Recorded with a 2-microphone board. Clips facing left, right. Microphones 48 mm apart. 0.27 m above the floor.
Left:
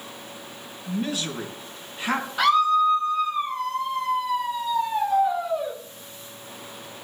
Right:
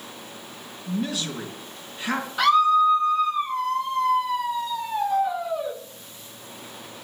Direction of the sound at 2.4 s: 5° left (ahead or behind).